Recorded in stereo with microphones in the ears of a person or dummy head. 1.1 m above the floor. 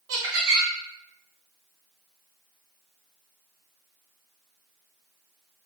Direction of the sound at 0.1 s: 65° right (ahead or behind).